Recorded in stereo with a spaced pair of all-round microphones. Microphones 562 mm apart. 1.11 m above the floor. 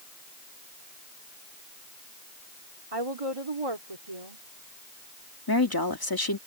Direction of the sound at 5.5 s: 40° left (ahead or behind).